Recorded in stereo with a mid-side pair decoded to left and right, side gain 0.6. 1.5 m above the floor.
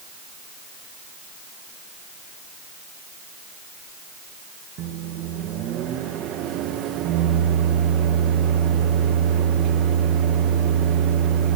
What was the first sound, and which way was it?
A microwave, 60° right.